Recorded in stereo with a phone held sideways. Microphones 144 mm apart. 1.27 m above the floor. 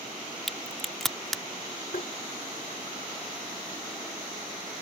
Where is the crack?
Centre (ahead or behind).